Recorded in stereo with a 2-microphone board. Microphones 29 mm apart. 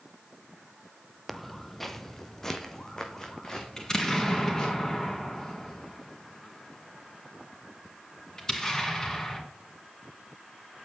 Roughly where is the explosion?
Centre.